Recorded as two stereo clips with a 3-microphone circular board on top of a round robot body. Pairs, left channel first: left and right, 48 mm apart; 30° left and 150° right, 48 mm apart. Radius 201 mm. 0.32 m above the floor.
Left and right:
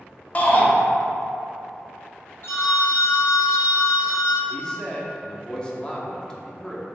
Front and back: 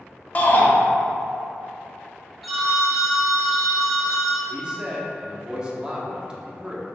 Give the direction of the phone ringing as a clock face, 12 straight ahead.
8 o'clock.